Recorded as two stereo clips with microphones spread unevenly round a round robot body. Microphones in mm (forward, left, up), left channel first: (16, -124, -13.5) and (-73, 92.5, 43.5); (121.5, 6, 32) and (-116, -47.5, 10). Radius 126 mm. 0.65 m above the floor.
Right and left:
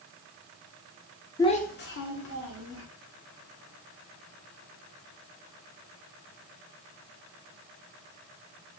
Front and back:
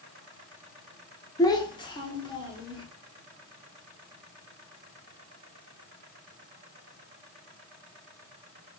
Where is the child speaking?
60° right, 0.5 m.